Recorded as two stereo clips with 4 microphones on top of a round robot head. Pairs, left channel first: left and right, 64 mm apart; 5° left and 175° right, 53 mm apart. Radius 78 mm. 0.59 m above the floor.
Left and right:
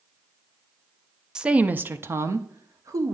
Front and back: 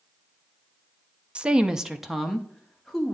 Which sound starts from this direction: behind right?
A woman speaking, at 1.4 s.